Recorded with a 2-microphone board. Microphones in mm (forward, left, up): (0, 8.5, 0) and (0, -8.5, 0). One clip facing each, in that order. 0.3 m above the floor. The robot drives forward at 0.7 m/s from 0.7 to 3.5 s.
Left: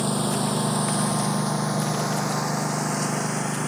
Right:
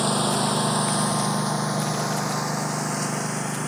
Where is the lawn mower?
20° right (ahead or behind); by 3.7 s 5° left (ahead or behind).